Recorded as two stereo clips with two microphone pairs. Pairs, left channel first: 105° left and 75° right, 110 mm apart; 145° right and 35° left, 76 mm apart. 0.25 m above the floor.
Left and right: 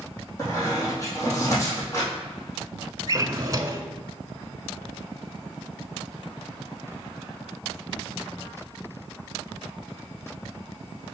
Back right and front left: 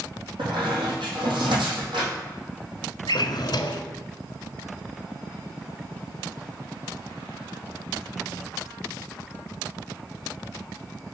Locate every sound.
0.4 s a squeak: 40° left, 3 m
3.1 s a drawer: 130° right, 0.6 m